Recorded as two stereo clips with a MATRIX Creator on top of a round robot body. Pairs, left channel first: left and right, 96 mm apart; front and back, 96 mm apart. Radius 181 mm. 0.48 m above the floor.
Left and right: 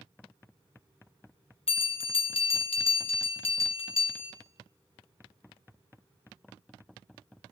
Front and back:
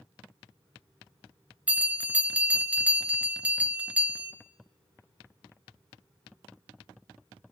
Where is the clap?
No clap in this recording.